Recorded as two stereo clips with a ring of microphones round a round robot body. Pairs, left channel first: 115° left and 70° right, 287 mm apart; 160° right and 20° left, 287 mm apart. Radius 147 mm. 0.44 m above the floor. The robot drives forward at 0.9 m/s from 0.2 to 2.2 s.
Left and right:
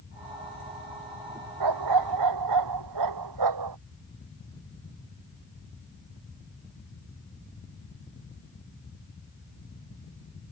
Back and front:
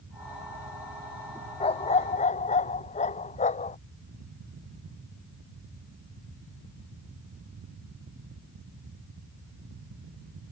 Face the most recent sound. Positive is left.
turn(degrees=-90)